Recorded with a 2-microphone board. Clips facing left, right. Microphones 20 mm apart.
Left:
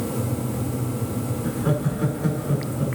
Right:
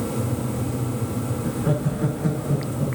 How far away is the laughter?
About 5 m.